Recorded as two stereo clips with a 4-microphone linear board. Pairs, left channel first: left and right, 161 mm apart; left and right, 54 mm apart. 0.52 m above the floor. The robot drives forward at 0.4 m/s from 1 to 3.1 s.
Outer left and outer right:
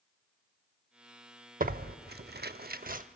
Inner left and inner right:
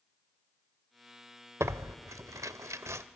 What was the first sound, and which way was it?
Tearing paper, 60° right (ahead or behind).